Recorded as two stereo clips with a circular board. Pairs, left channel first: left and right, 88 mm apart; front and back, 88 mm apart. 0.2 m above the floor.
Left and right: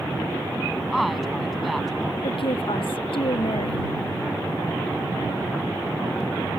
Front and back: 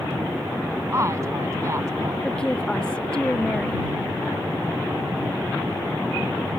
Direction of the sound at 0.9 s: Straight behind.